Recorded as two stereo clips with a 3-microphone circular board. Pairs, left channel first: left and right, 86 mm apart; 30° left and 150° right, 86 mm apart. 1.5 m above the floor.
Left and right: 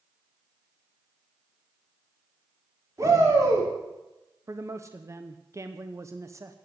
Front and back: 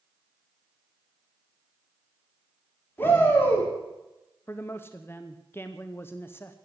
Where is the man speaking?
35° right, 0.8 m.